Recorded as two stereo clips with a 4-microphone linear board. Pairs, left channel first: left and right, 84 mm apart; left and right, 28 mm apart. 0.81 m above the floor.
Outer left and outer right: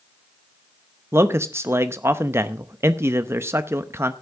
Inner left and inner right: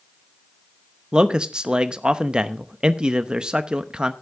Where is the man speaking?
35° right (ahead or behind), 0.7 m.